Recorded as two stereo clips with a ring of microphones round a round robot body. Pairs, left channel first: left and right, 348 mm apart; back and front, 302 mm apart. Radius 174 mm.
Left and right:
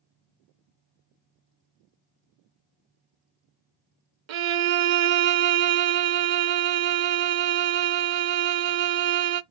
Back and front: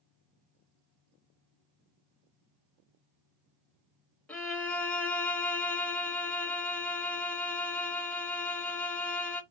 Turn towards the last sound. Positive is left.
turn(degrees=-95)